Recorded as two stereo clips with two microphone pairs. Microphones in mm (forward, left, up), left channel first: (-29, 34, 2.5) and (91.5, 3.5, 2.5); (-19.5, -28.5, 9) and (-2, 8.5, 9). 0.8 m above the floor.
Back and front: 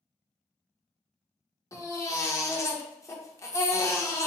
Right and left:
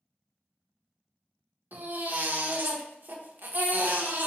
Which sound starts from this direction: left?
A baby crying, at 1.7 s.